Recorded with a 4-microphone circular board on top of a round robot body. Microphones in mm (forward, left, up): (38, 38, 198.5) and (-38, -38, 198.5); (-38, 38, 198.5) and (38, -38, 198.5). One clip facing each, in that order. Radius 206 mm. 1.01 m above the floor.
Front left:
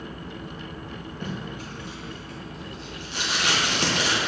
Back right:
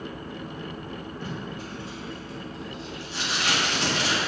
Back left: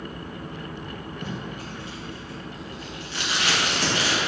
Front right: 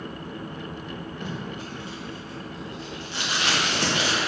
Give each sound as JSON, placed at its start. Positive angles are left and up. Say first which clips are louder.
{"t": 1.2, "sound": "tape being pulled", "louder": "front left 4 dB, even", "azimuth_deg": 20, "distance_m": 2.0}